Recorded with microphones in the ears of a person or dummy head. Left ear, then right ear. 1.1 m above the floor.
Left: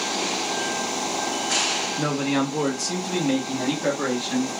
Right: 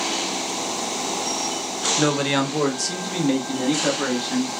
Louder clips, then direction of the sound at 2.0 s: Right 3 dB; 40° right (ahead or behind).